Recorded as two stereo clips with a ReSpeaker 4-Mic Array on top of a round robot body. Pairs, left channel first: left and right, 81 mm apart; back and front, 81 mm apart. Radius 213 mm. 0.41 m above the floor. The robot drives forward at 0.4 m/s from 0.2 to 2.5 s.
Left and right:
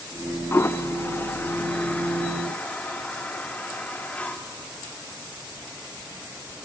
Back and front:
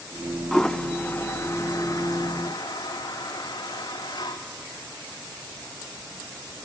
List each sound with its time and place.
0.5 s a toilet flushing: 100° left, 0.8 m; by 4.4 s 160° left, 1.2 m